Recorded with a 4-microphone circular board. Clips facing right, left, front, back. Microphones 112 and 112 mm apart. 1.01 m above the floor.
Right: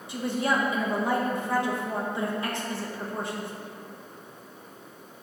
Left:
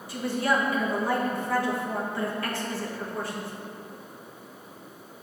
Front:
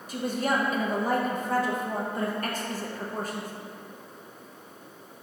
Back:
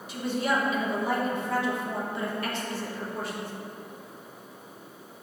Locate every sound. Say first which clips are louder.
0.1 s a woman speaking: left 1 dB, even; 30° right, 1.1 m